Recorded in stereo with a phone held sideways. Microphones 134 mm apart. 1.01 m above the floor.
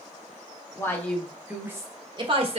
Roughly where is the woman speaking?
Left.